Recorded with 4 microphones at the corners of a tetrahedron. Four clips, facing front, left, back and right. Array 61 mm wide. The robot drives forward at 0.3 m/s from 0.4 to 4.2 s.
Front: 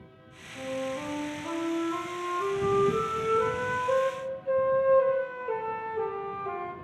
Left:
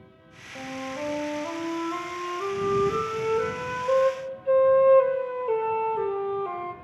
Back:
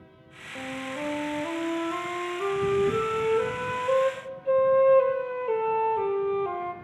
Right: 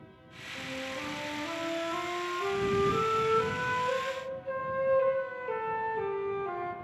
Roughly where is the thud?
I don't hear a thud.